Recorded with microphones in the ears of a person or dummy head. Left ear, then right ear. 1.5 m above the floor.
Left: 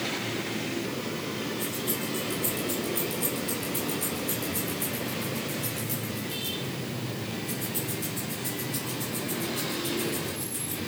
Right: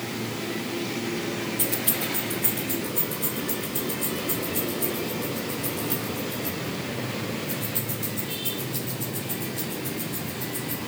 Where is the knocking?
I don't hear knocking.